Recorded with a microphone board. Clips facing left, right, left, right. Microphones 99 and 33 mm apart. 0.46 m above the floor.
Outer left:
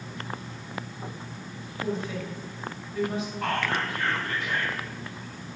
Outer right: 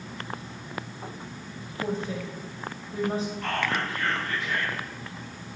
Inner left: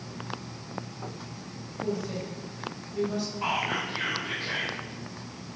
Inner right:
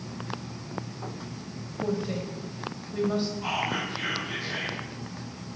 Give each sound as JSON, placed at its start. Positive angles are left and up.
{"t": 1.8, "sound": "a woman speaking", "side_deg": -35, "distance_m": 2.0}
{"t": 3.4, "sound": "whispering", "side_deg": 55, "distance_m": 2.0}